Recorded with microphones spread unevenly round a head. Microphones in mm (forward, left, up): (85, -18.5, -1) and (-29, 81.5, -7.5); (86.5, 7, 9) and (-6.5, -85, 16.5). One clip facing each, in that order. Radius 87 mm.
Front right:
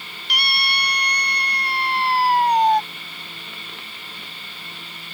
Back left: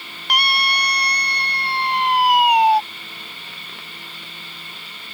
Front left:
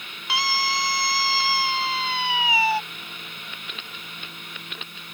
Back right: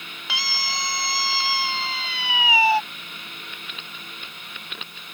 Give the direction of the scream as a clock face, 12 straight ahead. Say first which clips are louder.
Back left 6 dB, front left 6 dB; 6 o'clock.